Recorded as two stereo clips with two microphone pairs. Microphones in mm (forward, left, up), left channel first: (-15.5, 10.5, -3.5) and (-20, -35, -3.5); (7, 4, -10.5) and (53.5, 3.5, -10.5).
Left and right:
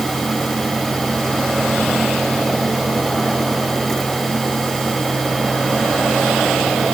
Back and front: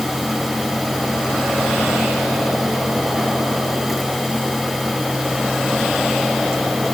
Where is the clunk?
No clunk in this recording.